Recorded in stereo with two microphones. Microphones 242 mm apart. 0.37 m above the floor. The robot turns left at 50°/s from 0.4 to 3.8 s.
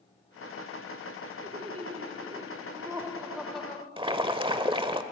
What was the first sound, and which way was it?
Laughter, 25° right (ahead or behind).